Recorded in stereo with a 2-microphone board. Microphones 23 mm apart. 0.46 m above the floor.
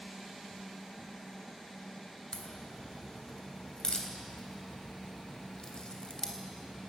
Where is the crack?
35° left (ahead or behind), 3 m.